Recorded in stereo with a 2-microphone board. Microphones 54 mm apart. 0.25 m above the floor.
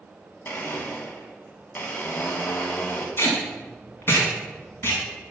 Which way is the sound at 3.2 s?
45° left (ahead or behind).